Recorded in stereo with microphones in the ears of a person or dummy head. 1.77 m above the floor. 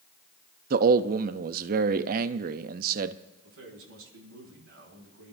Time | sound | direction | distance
0.7 | a man speaking | 55° right (ahead or behind) | 0.6 m
3.4 | a man speaking | 85° right | 6.5 m